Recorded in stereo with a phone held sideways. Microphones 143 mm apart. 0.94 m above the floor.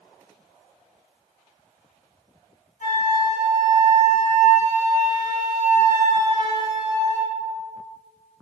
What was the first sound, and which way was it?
A flute, 80° left.